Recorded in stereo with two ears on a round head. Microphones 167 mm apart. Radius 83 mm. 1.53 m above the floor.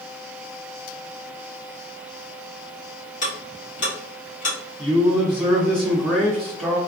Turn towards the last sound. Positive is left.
turn(degrees=5)  # may be behind; listen again after turning